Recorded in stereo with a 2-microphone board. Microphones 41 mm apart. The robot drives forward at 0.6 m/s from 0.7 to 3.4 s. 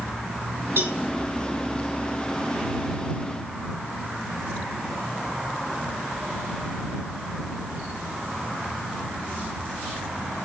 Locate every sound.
0.8 s a cowbell: 75° right (ahead or behind), 2.5 m